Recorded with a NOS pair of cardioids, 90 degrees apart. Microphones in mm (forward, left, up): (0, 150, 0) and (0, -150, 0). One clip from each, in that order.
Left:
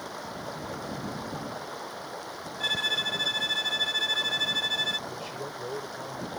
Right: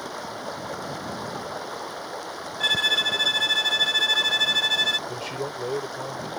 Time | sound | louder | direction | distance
0.0 | running water | right 4 dB | 40° right | ?
2.6 | a violin | right 6 dB | 45° right | ?
5.1 | a man speaking | right 6 dB | 55° right | ?